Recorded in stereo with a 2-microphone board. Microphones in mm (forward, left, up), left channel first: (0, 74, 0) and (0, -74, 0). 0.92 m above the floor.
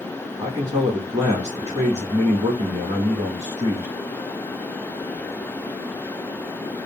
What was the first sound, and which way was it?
A man speaking, 40° right (ahead or behind).